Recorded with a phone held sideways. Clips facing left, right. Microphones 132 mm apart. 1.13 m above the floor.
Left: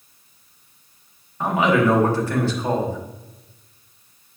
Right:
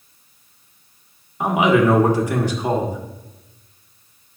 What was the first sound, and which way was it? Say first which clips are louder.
A man speaking: right 2 dB; 15° right (ahead or behind).